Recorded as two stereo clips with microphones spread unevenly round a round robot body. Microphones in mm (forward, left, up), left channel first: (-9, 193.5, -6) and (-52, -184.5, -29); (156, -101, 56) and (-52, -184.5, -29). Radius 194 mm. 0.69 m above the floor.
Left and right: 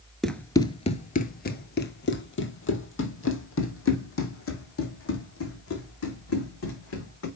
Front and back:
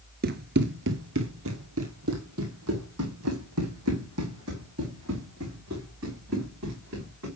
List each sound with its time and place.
0.2 s running footsteps: 165° left, 0.6 m; by 7.3 s 140° left, 4 m